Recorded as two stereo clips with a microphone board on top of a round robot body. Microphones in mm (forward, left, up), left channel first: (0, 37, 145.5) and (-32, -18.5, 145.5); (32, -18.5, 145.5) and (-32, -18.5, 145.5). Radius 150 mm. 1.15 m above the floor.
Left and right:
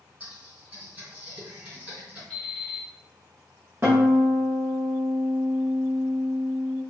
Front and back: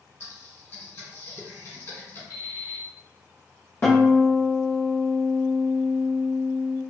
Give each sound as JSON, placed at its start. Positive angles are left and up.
{"t": 0.2, "sound": "typing on a keyboard", "azimuth_deg": -50, "distance_m": 1.8}
{"t": 2.3, "sound": "an alarm clock", "azimuth_deg": -20, "distance_m": 1.2}
{"t": 3.8, "sound": "a guitar", "azimuth_deg": -55, "distance_m": 0.6}